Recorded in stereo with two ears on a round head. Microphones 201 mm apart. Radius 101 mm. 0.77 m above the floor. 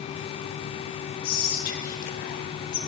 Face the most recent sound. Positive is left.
turn(degrees=40)  # may be behind; listen again after turning